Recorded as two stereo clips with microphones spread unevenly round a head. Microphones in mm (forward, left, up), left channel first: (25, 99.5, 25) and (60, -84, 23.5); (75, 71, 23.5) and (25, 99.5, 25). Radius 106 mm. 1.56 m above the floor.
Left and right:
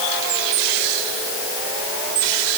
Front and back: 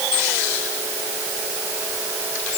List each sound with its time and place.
Only background noise.